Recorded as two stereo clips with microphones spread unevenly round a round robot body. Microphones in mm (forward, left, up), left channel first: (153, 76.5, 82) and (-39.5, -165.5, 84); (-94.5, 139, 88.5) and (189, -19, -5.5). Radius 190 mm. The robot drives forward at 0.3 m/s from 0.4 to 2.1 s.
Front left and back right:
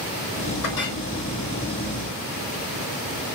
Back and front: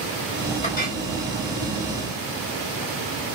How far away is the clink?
About 3 m.